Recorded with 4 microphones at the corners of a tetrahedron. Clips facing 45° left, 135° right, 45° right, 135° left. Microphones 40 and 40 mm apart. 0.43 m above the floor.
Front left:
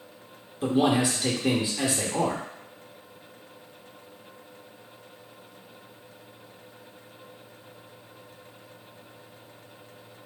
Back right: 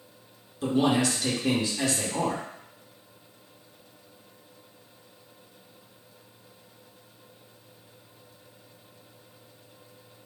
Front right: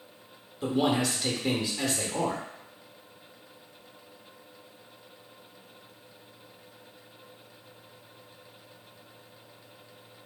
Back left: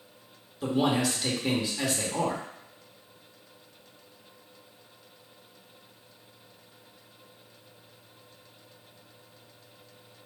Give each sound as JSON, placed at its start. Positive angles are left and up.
{"t": 0.6, "sound": "a man speaking", "azimuth_deg": 50, "distance_m": 0.8}